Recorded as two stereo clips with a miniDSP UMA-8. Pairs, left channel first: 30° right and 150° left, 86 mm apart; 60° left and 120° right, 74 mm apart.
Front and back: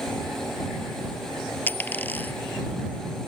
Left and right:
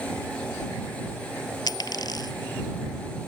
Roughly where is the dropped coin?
Ahead left.